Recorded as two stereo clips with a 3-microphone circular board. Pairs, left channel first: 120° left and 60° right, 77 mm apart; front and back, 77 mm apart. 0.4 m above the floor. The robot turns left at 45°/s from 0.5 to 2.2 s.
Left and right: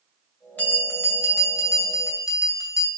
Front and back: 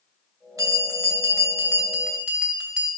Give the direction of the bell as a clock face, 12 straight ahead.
6 o'clock.